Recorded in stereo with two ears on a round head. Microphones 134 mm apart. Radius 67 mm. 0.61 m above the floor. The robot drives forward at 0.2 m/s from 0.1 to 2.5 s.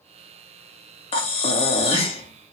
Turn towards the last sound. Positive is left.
turn(degrees=40)  # may be behind; listen again after turning